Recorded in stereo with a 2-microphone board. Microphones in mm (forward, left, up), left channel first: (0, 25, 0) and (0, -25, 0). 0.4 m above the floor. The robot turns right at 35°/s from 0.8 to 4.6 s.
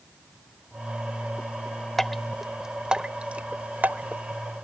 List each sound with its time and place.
2.0 s dripping: 5° left (ahead or behind); by 4.2 s 40° right (ahead or behind)